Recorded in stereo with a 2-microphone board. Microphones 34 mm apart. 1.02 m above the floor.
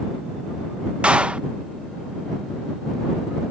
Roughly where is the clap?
Right.